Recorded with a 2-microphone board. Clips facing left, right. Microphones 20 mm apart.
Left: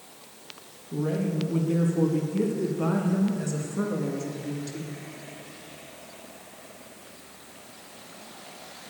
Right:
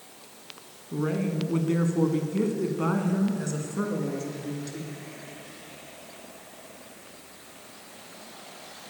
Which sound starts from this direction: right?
A woman speaking, at 0.9 s.